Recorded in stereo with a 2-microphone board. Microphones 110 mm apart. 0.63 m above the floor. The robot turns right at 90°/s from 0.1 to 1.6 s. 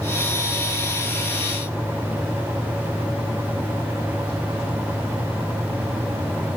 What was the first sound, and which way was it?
Only background noise.